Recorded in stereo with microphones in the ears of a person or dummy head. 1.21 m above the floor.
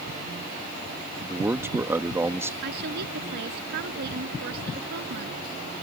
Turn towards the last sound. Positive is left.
turn(degrees=-55)  # may be behind; listen again after turning